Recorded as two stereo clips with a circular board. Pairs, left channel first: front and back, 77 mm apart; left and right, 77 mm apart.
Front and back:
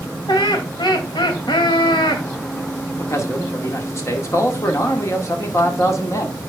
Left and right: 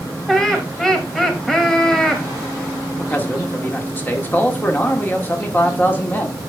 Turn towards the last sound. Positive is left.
turn(degrees=35)